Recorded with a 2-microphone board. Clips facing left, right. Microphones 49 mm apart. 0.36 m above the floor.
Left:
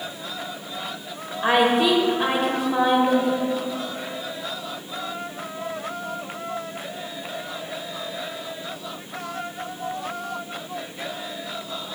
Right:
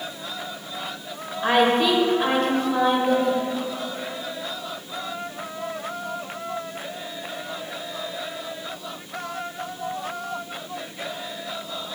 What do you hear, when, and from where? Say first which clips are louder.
1.4 s a woman speaking: even; 10° left (ahead or behind), 1.1 m